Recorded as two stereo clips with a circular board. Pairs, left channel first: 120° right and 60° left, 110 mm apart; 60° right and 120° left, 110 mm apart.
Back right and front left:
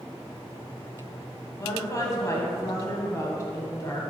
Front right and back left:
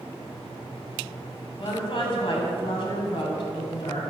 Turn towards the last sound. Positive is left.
turn(degrees=-70)